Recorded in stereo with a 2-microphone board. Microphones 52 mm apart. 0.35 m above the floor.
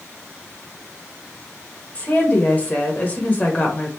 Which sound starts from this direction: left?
A woman speaking, at 1.9 s.